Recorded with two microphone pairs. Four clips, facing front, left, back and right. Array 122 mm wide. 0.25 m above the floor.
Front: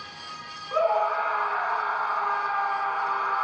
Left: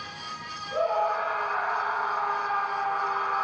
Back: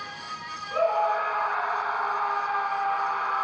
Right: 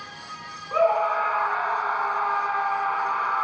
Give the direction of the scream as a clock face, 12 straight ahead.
2 o'clock.